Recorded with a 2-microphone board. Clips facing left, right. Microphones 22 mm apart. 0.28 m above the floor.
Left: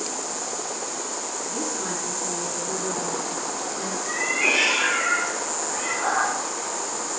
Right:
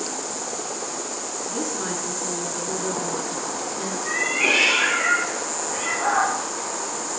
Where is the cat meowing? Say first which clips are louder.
Right 2 dB; 70° right (ahead or behind), 3.5 m.